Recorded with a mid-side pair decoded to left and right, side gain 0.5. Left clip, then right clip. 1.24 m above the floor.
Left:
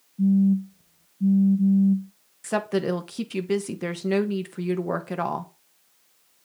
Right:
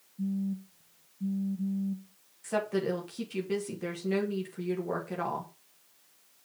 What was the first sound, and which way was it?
A phone buzzing, 50° left.